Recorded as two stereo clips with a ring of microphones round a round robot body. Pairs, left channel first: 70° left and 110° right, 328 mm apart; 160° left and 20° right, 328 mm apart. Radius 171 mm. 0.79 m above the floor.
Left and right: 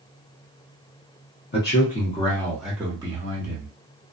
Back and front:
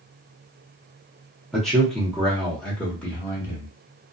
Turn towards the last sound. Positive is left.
turn(degrees=-120)